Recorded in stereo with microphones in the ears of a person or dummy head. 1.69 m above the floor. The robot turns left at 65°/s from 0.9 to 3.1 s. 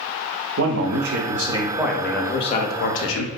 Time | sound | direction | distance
0.6 | a man speaking | 115° right | 0.6 m